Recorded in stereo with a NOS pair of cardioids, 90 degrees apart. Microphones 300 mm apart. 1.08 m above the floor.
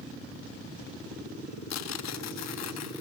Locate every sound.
1.7 s tearing paper: 65° left, 1.2 m